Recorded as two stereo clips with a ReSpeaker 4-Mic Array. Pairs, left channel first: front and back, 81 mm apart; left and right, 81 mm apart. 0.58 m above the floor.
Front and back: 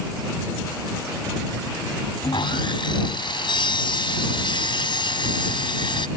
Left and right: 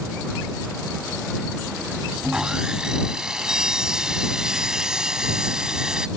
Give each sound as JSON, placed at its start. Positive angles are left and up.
{"t": 2.2, "sound": "sawing", "azimuth_deg": -10}